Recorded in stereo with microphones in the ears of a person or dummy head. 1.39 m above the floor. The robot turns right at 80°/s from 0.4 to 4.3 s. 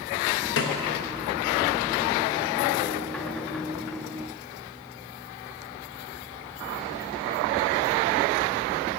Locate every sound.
0.6 s a snare drum: 65° left (ahead or behind), 0.7 m